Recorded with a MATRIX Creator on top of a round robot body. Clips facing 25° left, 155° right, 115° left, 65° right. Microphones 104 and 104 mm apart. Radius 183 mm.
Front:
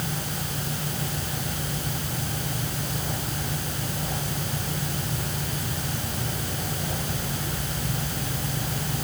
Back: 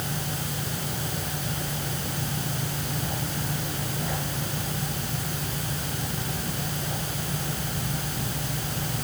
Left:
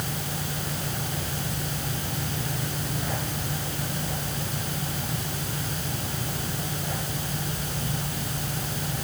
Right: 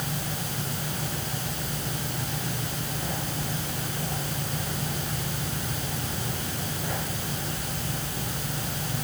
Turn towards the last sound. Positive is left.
No sound to turn to.